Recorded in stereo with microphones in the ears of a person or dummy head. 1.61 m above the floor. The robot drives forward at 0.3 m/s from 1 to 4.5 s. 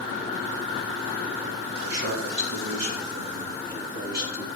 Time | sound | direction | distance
1.8 | a man speaking | 70° right (ahead or behind) | 2.5 m